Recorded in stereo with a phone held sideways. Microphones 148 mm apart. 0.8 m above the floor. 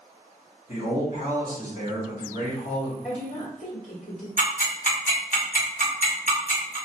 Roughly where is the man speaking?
Left.